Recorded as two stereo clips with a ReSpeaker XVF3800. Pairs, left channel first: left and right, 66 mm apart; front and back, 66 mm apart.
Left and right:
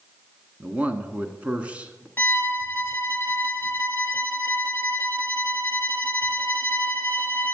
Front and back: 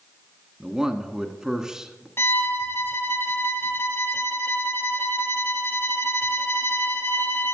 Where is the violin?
40° left, 0.9 m.